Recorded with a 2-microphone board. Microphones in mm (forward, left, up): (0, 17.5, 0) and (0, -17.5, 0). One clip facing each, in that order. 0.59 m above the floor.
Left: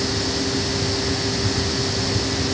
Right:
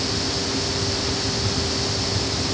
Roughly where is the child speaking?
I don't hear a child speaking.